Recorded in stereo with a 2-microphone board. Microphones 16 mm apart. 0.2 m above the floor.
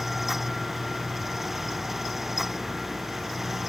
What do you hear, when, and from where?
Only background noise.